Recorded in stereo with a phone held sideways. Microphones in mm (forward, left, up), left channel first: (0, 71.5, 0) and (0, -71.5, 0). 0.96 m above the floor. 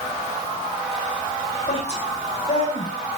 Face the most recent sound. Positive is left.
turn(degrees=50)  # may be behind; listen again after turning